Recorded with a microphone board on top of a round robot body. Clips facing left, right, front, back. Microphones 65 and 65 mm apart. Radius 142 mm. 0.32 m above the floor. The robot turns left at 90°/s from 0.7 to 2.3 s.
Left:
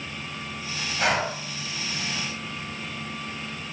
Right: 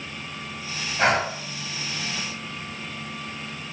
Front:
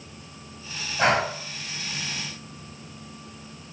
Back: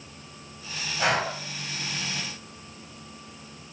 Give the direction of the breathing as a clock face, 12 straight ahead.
1 o'clock.